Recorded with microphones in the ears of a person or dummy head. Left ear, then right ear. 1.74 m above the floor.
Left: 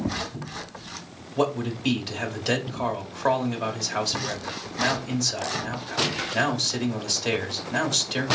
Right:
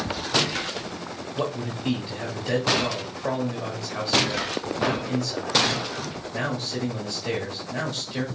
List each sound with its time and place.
1.4 s a man speaking: 45° left (ahead or behind), 1.3 m